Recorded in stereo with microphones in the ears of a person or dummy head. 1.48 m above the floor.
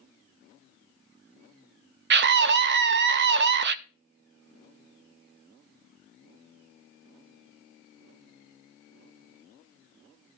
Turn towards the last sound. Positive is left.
turn(degrees=-50)  # may be behind; listen again after turning